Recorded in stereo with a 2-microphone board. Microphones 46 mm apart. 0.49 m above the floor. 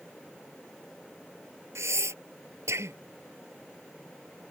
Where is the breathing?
75° right (ahead or behind).